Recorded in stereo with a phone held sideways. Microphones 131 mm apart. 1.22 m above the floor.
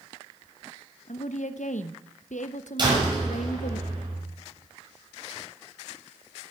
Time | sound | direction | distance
1.1 | a woman speaking | 85° left | 0.9 m
2.8 | a door slam | 40° right (ahead or behind) | 6 m